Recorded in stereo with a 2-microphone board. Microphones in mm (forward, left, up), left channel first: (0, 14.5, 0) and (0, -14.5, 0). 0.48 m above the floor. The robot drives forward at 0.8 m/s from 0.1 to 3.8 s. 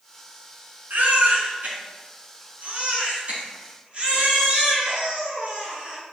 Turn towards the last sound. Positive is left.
turn(degrees=-45)  # may be behind; listen again after turning